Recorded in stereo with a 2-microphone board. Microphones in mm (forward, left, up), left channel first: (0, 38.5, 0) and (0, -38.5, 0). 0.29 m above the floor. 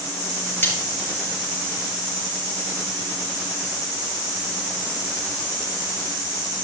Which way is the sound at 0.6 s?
25° left (ahead or behind).